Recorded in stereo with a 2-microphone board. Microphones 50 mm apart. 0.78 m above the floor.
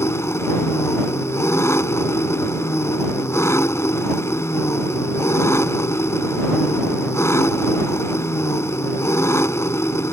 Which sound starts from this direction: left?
An engine running, at 0.0 s.